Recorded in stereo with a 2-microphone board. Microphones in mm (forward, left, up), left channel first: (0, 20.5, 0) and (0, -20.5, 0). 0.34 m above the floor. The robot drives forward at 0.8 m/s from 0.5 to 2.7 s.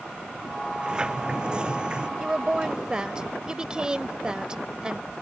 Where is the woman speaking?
20° right (ahead or behind).